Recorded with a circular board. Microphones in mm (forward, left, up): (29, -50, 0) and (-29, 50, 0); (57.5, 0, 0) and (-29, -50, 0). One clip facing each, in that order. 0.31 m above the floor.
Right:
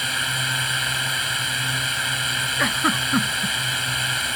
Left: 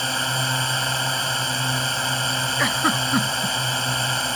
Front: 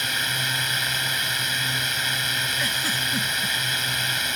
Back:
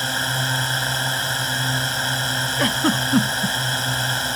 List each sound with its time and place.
0.0 s a drone: 165° left
2.6 s a giggle: 150° right